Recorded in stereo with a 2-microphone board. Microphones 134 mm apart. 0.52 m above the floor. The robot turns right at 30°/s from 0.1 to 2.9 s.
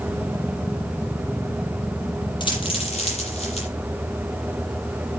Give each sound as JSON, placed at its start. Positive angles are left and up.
{"t": 2.4, "sound": "a dropped coin", "side_deg": 35, "distance_m": 7.5}